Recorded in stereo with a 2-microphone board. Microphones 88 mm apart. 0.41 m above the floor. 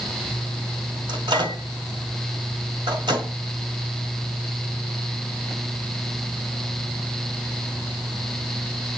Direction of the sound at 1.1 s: 60° right (ahead or behind).